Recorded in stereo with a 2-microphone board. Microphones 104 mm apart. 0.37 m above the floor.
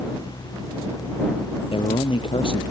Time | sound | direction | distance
1.7 | a man speaking | 60° left (ahead or behind) | ?